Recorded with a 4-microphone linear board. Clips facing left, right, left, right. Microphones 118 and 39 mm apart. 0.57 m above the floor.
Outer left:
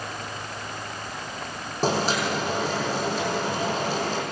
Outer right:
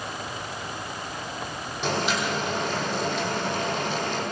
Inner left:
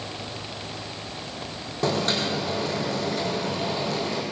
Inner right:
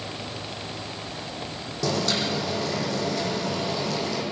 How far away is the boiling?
About 7.5 m.